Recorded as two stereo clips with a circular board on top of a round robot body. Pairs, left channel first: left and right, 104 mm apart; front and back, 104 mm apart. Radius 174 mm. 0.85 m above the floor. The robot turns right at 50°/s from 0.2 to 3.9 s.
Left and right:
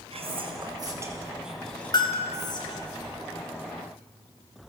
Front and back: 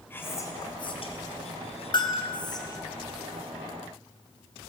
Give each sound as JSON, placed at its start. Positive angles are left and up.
{"t": 0.1, "sound": "whispering", "azimuth_deg": -70, "distance_m": 4.5}
{"t": 1.9, "sound": "a bell", "azimuth_deg": 40, "distance_m": 2.0}